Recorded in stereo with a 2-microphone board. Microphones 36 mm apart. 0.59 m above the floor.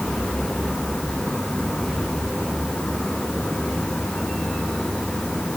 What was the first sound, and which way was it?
Only background noise.